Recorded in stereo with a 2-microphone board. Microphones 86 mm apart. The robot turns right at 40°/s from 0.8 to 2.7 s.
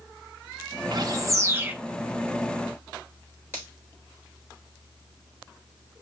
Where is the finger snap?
25° right (ahead or behind), 3.5 m.